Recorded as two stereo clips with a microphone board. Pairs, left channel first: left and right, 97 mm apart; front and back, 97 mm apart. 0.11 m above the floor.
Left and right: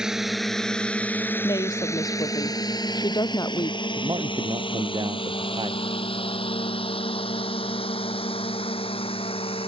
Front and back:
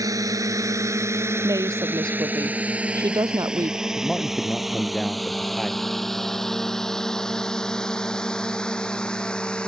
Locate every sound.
0.0 s a drone: 170° right; by 9.7 s 80° left
1.4 s a woman speaking: 130° left
4.0 s a man speaking: 85° right